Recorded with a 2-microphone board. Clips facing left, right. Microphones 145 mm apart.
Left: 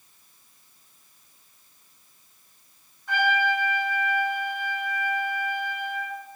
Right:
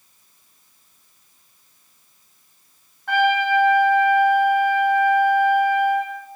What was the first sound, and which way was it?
A trumpet, 70° right (ahead or behind).